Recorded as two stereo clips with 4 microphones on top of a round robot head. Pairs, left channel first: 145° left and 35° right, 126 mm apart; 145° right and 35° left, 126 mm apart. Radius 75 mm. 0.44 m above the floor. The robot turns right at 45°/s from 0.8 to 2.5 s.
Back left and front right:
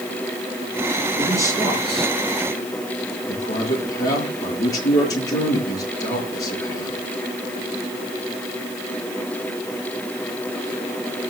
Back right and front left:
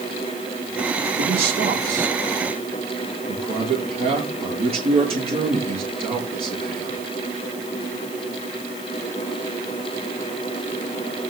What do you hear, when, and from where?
1.2 s a man speaking: 20° left, 7 m; by 7.0 s 80° left, 7 m